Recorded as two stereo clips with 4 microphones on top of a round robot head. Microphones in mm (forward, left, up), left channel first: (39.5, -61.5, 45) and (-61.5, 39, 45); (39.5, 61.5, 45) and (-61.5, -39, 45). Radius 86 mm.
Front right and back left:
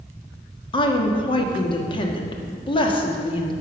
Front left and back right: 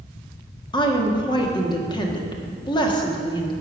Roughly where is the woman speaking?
Ahead.